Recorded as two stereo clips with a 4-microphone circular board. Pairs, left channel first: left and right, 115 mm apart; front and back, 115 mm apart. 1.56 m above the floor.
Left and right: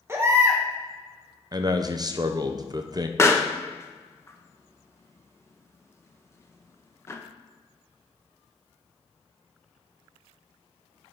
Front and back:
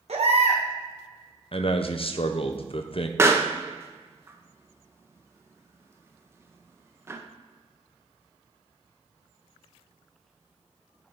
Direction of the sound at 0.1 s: 155° right.